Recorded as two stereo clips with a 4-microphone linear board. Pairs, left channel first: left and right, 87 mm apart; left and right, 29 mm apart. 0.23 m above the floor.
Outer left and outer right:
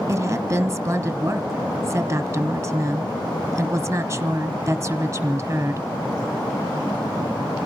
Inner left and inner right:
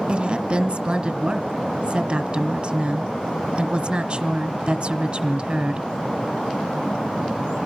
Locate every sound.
0.1 s a woman speaking: 35° right (ahead or behind), 1.3 m